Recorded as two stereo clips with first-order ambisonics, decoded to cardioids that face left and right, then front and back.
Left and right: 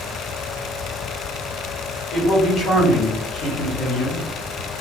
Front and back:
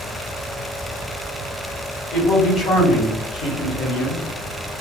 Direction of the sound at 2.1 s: 30° left.